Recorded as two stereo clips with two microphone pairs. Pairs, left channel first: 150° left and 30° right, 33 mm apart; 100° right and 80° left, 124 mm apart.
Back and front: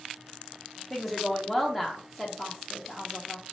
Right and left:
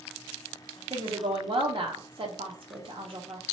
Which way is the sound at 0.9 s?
60° left.